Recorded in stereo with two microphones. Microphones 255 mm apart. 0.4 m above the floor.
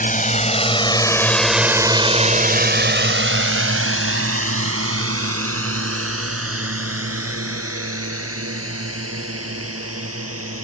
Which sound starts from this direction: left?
A drone, at 0.0 s.